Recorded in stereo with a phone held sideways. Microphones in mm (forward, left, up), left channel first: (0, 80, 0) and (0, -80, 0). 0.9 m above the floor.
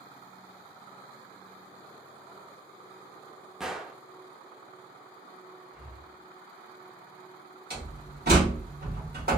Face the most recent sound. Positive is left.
turn(degrees=-80)